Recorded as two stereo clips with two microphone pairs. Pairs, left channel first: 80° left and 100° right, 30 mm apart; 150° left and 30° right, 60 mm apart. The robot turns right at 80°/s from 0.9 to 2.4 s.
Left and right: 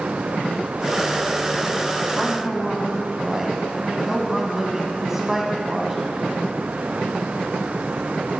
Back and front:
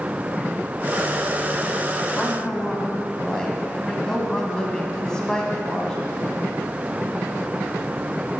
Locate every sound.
2.2 s a woman speaking: 170° right, 1.4 m; by 6.1 s 150° right, 1.4 m